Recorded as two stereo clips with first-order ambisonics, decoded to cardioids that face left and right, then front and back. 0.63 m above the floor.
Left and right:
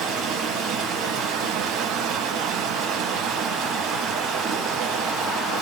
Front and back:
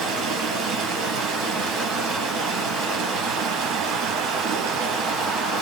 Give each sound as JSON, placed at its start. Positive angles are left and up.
{"t": 0.0, "sound": "running water", "azimuth_deg": -150, "distance_m": 4.0}